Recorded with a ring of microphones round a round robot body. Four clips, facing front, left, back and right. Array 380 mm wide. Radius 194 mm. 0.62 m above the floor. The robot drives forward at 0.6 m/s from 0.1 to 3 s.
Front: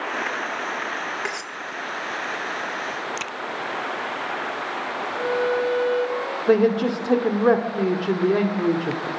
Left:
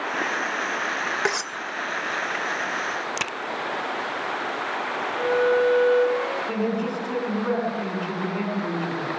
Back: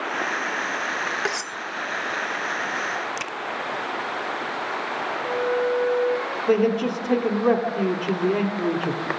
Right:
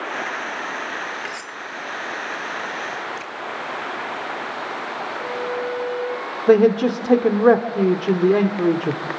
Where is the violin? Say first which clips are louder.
Left 8 dB, front 2 dB; 45° left, 6.5 m.